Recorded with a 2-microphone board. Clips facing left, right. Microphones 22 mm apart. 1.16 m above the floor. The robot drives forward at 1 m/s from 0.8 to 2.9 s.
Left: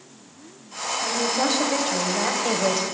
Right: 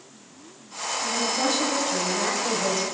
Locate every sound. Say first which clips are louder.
1.0 s a woman speaking: left 2 dB; 35° left (ahead or behind), 6 m; by 2.8 s 50° left (ahead or behind), 4.5 m